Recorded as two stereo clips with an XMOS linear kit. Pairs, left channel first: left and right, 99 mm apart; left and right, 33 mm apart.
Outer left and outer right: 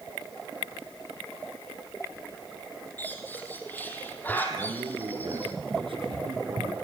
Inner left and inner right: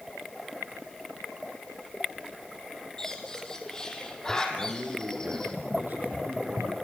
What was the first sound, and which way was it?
A bird, 20° left (ahead or behind).